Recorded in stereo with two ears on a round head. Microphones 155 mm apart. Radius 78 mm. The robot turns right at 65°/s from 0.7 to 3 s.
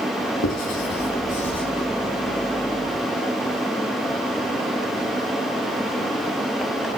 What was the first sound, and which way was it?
Writing, 85° left.